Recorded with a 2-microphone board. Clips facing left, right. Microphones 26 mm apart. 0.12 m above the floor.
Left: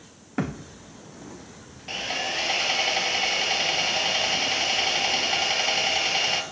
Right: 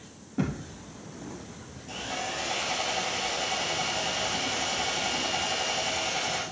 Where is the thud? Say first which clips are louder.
Left 1 dB; 70° left (ahead or behind), 2.0 m.